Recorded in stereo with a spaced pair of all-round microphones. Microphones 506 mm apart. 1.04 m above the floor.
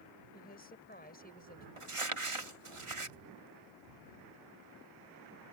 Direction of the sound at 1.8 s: 70° right (ahead or behind).